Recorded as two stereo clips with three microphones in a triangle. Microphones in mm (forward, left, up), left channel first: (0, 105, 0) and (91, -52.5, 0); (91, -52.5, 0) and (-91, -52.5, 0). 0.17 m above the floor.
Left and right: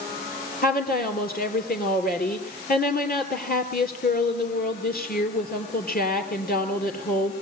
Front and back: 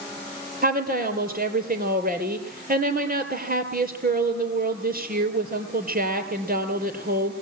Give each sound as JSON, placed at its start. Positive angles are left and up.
{"t": 0.6, "sound": "a woman speaking", "azimuth_deg": 150, "distance_m": 3.0}